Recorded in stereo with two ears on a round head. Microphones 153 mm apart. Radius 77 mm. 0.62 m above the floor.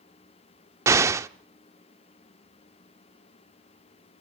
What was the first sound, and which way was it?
An explosion, 15° right (ahead or behind).